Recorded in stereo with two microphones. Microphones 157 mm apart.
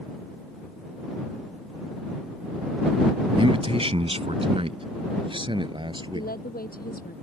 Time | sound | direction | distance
3.4 | a man speaking | 35° right (ahead or behind) | ?
6.1 | a woman speaking | 70° left (ahead or behind) | ?